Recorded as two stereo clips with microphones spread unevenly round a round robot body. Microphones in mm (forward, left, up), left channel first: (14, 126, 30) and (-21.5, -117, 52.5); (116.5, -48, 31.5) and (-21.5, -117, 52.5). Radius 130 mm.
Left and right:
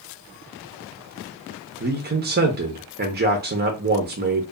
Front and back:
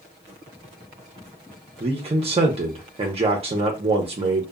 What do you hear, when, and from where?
1.8 s a man speaking: 120° right, 0.6 m